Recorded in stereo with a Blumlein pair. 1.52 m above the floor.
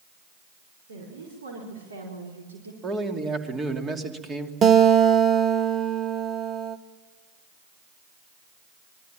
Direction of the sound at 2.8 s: 20° right.